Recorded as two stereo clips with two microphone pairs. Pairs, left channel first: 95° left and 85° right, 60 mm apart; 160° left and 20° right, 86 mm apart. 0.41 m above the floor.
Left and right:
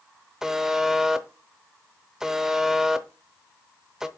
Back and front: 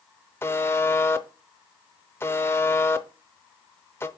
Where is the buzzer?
160° right, 0.6 m.